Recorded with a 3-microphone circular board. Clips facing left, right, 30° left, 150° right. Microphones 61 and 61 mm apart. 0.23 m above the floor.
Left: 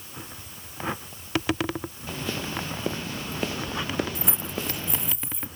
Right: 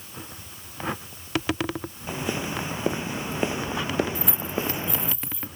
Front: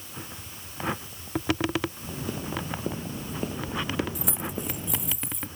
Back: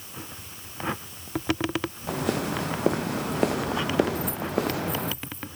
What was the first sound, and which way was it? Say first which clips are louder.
Footsteps: right 3 dB, back 6 dB; 165° right.